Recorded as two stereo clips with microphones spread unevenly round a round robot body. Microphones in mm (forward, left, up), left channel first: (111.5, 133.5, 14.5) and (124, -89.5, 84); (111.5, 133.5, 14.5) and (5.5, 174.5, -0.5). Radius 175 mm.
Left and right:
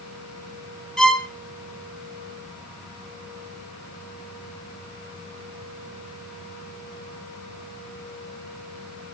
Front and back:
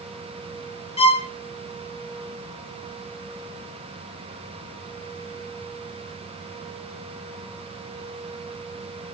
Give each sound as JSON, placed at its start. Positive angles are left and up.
{"t": 1.0, "sound": "a violin", "azimuth_deg": 0, "distance_m": 2.0}